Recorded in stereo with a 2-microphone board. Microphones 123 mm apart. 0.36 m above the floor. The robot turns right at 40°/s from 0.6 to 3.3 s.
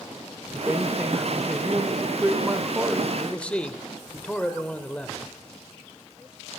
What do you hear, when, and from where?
0.5 s a man speaking: 10° right (ahead or behind), 0.9 m; by 3.1 s 15° right (ahead or behind), 0.9 m
3.2 s a man speaking: 5° left (ahead or behind), 0.8 m; by 5.2 s 10° left (ahead or behind), 0.8 m